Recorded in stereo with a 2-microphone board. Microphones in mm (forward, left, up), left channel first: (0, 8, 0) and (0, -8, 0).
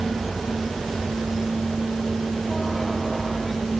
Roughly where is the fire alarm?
No fire alarm in this recording.